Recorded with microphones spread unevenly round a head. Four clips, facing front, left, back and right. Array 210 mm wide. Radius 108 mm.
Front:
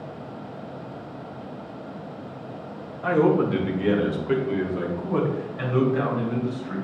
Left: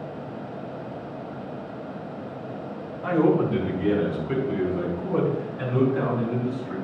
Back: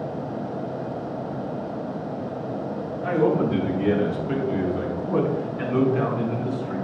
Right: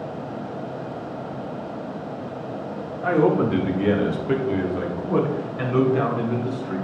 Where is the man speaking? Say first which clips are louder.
Right 2 dB, front 1 dB; 60° right, 2 m; by 6.8 s 85° right, 4.5 m.